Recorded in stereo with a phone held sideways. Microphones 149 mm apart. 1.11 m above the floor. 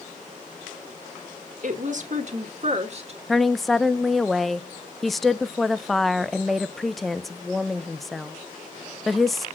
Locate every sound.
1.6 s a woman speaking: 60° right (ahead or behind), 1.5 m; by 3.2 s 45° right (ahead or behind), 2 m
3.3 s a woman speaking: centre (ahead or behind), 0.5 m